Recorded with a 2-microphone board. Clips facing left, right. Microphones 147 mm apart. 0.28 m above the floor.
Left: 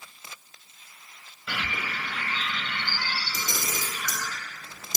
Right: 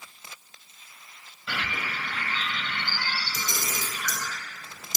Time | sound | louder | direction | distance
1.5 | a bird | even | 5° left (ahead or behind) | 0.8 m
3.3 | a camera shutter | even | 50° left (ahead or behind) | 0.6 m